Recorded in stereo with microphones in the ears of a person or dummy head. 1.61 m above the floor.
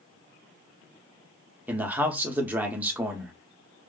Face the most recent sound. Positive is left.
turn(degrees=-10)  # may be behind; listen again after turning